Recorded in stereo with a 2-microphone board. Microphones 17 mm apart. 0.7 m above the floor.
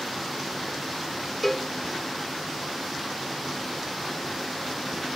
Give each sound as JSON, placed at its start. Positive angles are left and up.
{"t": 1.4, "sound": "a cowbell", "side_deg": 15, "distance_m": 1.9}